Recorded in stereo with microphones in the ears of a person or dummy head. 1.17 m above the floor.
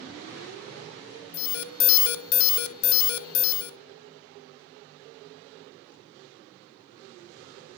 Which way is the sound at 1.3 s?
75° left (ahead or behind).